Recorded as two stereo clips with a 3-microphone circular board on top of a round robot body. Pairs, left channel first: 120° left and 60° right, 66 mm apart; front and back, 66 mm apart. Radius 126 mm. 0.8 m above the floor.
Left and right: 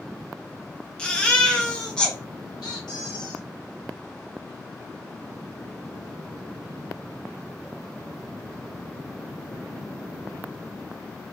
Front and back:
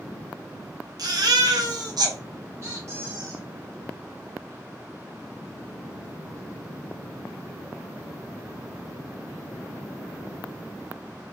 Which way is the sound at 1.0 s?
165° right.